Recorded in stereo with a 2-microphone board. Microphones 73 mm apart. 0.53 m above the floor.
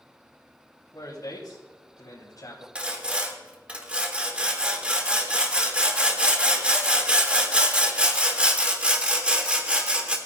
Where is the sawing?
15° right (ahead or behind), 1.5 m.